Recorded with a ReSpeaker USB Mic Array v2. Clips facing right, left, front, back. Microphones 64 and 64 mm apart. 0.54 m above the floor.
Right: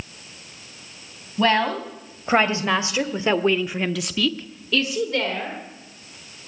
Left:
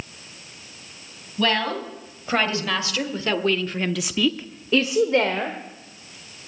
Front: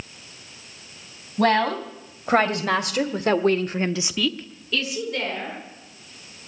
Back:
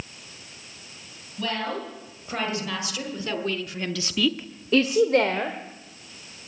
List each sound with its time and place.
1.4 s a woman speaking: 25° right, 3 m; by 5.6 s 150° left, 1.7 m